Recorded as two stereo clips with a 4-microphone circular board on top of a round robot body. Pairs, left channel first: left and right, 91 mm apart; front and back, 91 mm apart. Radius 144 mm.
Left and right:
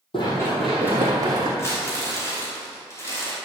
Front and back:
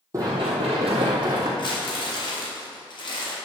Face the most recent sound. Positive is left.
turn(degrees=30)